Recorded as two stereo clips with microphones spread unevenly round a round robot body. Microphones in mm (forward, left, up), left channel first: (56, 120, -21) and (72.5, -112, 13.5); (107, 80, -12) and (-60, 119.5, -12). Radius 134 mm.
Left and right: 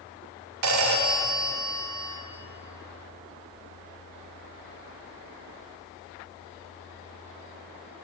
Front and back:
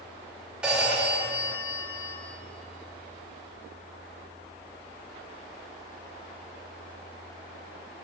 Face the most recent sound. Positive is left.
turn(degrees=-110)